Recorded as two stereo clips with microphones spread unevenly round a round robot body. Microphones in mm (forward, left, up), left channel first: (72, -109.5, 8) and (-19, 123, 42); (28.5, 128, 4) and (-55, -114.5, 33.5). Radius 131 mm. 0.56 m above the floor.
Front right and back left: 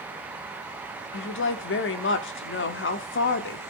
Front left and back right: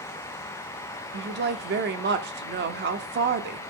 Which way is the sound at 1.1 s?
60° right.